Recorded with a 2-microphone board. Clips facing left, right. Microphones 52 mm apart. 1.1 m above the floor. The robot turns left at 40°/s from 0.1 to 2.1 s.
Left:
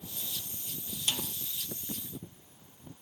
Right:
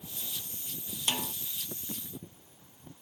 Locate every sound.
1.1 s a snare drum: 35° right (ahead or behind); by 1.3 s 45° right (ahead or behind)